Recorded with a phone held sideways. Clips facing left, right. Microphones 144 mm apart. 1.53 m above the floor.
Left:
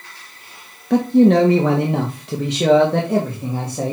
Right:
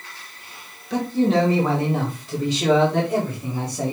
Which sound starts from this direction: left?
A man speaking, at 0.9 s.